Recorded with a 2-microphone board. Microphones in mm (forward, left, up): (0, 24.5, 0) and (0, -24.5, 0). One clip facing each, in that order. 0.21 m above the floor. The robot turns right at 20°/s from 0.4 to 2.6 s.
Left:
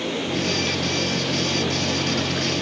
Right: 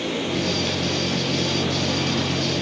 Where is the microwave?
10° left (ahead or behind), 0.9 m; by 2.6 s 5° right (ahead or behind), 0.9 m.